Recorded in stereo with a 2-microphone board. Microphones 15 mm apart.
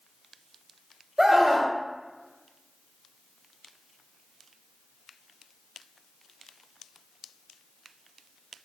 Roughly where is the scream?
Right.